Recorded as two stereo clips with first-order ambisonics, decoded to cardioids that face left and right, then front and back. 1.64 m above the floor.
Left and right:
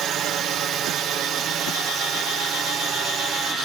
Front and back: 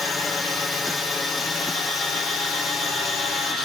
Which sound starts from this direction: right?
A drone, at 0.0 s.